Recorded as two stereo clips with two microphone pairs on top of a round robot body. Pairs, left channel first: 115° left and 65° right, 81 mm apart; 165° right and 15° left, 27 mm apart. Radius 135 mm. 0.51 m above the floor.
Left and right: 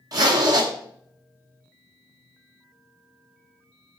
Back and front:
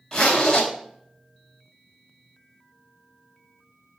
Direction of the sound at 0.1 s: 105° right.